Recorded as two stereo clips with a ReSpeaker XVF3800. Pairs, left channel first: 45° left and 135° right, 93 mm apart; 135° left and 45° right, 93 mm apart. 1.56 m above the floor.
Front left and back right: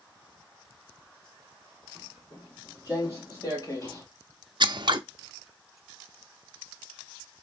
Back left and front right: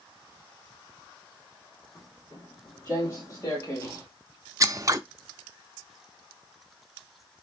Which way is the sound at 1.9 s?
85° left.